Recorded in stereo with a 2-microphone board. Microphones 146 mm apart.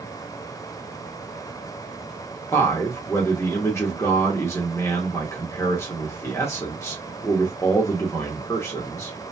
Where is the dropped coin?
I don't hear a dropped coin.